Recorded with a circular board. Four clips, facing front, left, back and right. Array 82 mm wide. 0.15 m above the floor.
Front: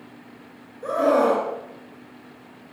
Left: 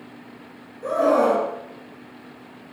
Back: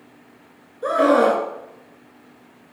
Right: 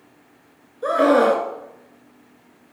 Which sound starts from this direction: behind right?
A scream, at 0.8 s.